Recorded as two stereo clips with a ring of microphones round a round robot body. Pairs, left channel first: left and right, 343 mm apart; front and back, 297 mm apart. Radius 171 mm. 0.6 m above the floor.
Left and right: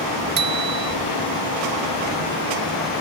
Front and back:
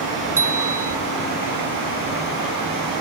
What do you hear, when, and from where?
0.4 s a bicycle bell: 95° right